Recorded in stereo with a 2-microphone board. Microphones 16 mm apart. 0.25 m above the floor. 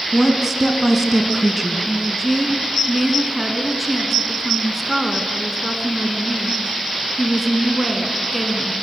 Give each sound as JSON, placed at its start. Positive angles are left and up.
{"t": 0.1, "sound": "a woman speaking", "side_deg": -10, "distance_m": 2.0}
{"t": 1.9, "sound": "a woman speaking", "side_deg": 0, "distance_m": 2.5}